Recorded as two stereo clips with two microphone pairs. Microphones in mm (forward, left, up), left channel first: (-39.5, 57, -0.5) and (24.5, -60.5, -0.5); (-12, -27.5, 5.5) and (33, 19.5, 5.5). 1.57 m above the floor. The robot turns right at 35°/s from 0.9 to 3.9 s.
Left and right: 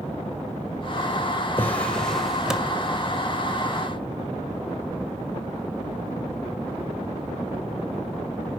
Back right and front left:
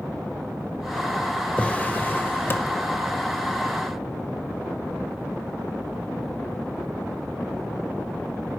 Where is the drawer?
Straight behind, 0.8 m; by 2.8 s 135° right, 0.8 m.